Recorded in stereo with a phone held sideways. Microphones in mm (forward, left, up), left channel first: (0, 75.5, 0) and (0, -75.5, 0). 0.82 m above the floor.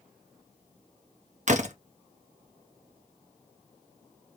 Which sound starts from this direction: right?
A door slam, at 1.5 s.